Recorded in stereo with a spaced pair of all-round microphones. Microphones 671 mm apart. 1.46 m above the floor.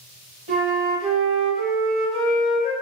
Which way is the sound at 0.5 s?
45° right (ahead or behind).